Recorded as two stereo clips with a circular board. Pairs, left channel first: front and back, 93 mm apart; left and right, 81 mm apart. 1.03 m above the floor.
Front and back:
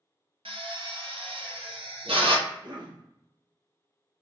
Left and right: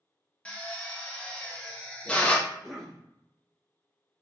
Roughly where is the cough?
Behind.